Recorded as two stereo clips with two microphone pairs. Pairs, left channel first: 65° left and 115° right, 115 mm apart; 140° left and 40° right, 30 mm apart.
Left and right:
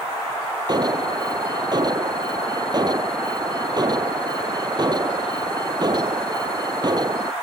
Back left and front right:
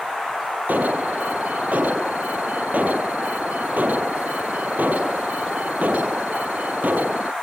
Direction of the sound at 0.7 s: 60° right.